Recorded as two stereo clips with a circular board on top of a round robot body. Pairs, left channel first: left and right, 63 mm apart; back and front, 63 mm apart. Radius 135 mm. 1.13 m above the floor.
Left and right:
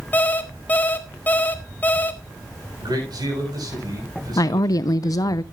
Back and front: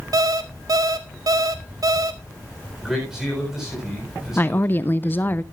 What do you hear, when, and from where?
0.1 s an alarm clock: 25° left, 1.0 m
2.8 s a man speaking: 85° right, 7.5 m
4.4 s a woman speaking: 120° left, 0.5 m